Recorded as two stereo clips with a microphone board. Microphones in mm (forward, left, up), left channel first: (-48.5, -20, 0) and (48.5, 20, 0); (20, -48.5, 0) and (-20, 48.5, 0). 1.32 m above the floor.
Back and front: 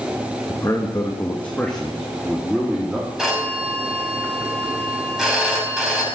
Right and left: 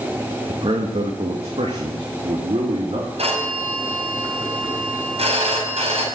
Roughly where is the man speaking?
Behind left.